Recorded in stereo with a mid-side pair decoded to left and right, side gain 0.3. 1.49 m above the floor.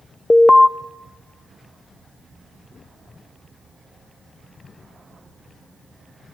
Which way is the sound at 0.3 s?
20° left.